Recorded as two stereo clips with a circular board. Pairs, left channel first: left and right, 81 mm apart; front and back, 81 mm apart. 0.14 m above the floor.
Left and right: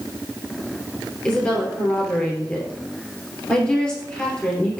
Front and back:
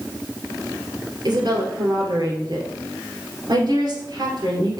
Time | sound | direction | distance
1.2 | a woman speaking | 165° left | 2.5 m